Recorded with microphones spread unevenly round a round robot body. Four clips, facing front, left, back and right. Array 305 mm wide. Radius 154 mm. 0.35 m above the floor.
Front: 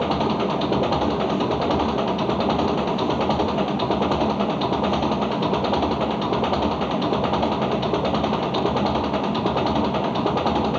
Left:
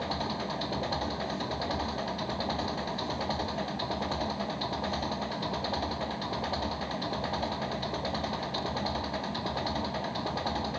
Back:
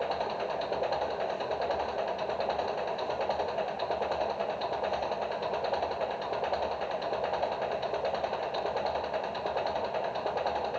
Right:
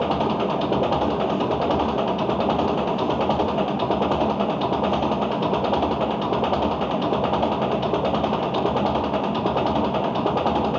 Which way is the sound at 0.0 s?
40° right.